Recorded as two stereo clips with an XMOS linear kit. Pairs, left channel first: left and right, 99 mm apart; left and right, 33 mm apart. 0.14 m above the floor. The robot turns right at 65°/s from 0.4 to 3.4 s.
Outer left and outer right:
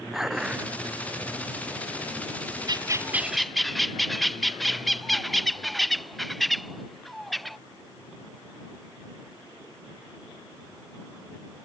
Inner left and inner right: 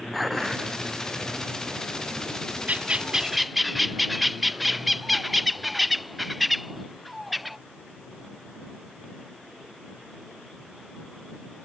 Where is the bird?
45° right; by 7.6 s straight ahead.